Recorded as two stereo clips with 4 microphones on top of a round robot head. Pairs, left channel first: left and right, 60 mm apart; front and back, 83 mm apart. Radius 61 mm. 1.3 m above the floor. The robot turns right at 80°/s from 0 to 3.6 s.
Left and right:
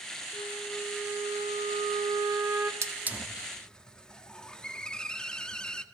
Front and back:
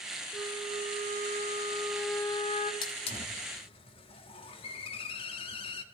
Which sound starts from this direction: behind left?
A flute, at 0.3 s.